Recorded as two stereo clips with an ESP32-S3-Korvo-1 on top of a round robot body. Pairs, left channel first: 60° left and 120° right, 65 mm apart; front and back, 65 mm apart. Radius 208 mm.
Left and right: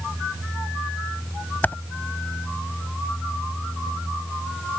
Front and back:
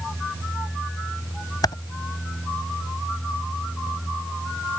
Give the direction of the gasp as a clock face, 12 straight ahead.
No gasp in this recording.